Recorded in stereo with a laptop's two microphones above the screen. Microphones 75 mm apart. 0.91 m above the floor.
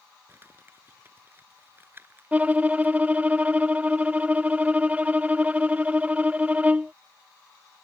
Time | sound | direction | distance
0.3 | crumpling | 30° right (ahead or behind) | ?
2.3 | a violin | 20° right (ahead or behind) | ?